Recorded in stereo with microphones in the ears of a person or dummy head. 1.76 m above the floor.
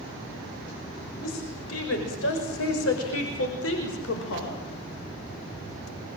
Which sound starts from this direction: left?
A woman speaking, at 1.2 s.